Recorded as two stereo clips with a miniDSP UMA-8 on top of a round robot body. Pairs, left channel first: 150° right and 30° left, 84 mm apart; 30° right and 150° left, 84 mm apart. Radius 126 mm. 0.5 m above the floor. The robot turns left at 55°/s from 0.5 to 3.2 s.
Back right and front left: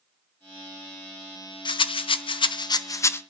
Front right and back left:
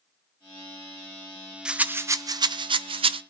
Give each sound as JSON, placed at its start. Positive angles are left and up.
{"t": 1.6, "sound": "a rattle", "azimuth_deg": -130, "distance_m": 0.6}